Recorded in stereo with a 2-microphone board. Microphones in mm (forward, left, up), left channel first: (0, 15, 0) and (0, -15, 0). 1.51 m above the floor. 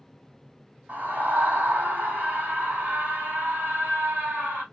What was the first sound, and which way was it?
A scream, 85° right.